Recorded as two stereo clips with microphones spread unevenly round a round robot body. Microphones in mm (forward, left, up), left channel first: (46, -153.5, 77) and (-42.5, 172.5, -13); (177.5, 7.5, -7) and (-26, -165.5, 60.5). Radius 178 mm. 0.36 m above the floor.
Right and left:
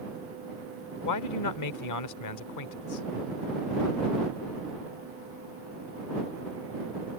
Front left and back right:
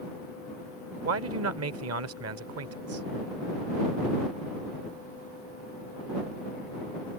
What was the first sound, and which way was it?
A man speaking, 110° right.